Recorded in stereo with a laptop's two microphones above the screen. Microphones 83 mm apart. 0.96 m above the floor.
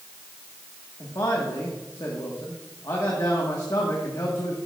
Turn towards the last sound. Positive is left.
turn(degrees=45)  # may be behind; listen again after turning